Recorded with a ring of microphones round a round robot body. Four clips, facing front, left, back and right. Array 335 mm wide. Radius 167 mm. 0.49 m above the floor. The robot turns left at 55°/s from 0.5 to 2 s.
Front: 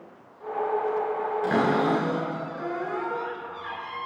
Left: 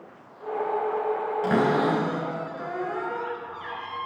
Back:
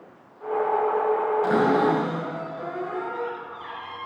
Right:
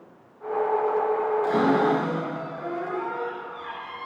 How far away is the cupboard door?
About 4 m.